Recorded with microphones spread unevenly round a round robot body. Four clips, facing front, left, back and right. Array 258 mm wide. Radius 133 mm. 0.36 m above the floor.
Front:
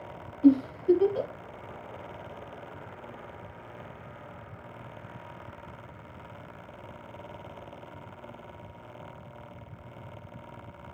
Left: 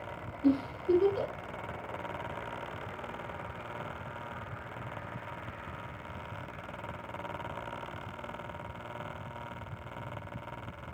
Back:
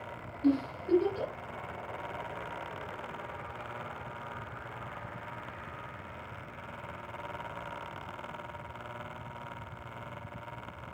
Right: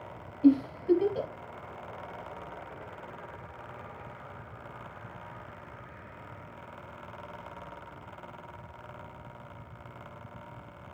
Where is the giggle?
35° right, 2 m.